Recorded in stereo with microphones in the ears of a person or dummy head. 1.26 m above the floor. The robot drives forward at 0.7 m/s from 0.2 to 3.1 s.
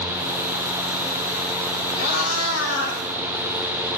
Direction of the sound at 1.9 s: 80° left.